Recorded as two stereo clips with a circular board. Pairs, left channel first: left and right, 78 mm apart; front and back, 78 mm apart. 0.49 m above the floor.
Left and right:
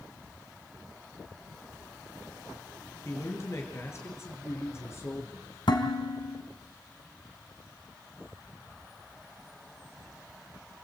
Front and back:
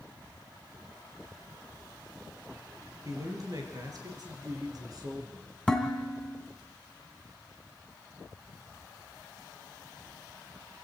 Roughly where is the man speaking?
Behind left.